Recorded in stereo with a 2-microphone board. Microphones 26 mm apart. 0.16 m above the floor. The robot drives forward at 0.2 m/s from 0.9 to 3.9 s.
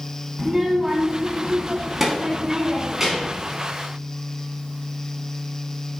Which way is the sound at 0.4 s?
15° right (ahead or behind).